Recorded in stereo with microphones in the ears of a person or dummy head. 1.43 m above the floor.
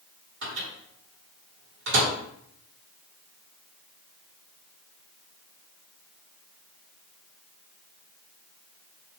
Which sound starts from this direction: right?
A microwave, at 0.4 s.